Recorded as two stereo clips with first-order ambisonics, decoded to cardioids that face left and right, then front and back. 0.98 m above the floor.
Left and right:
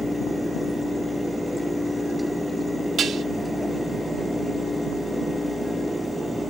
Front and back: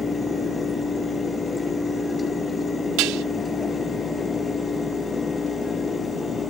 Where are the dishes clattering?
155° right.